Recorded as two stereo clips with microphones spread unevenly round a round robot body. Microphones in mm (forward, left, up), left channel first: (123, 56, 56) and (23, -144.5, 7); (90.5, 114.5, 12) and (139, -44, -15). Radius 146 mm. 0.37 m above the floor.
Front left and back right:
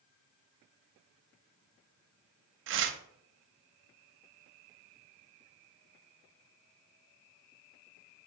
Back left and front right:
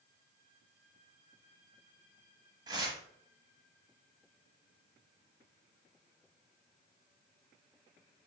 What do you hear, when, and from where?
2.7 s tearing paper: 145° right, 0.6 m